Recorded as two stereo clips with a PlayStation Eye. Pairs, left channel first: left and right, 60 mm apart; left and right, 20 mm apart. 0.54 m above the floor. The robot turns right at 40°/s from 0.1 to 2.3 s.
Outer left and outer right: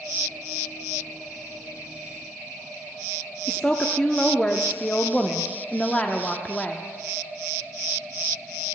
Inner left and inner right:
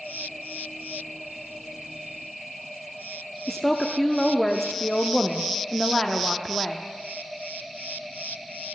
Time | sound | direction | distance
3.5 | a woman speaking | 20° left (ahead or behind) | 0.7 m